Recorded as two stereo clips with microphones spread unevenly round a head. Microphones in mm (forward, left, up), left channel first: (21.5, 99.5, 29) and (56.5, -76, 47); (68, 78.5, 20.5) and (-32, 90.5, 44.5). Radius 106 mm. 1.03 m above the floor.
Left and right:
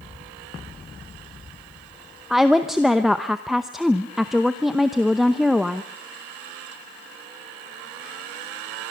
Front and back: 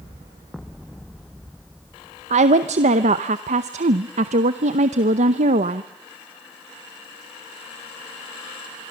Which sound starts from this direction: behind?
A woman speaking, at 2.3 s.